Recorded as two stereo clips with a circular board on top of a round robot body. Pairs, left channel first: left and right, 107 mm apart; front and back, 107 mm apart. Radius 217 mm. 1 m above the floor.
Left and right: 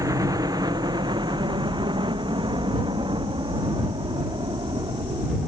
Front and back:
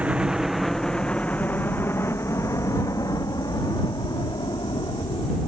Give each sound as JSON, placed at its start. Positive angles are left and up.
{"t": 0.0, "sound": "a helicopter", "azimuth_deg": -110}